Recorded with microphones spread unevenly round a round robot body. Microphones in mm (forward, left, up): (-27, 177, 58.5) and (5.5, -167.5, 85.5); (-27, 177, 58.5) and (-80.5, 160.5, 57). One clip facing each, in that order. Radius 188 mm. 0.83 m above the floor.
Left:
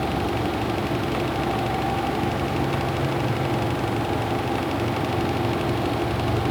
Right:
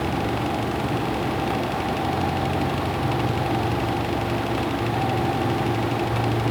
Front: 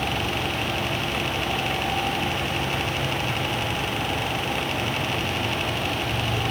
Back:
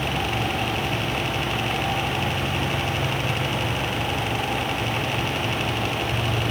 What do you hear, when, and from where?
Only background noise.